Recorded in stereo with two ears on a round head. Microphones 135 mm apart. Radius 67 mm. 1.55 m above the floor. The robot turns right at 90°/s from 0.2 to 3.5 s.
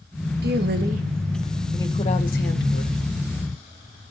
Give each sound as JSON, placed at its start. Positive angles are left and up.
{"t": 0.4, "sound": "a woman speaking", "azimuth_deg": -105, "distance_m": 1.9}